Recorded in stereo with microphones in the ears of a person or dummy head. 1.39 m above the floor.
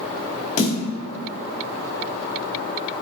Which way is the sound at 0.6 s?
50° left (ahead or behind).